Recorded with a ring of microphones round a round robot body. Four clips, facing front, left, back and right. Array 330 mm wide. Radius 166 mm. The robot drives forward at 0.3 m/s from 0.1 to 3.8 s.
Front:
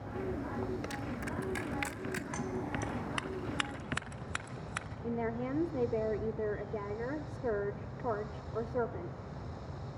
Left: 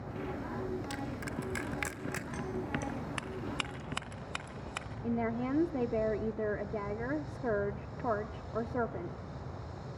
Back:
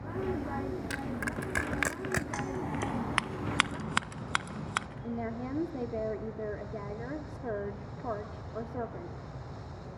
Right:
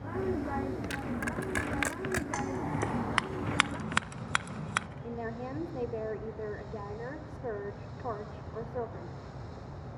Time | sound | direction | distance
0.9 | crushing | 150° right | 1.3 m
2.3 | scissors | 110° right | 0.7 m
5.0 | a woman speaking | 80° left | 1.1 m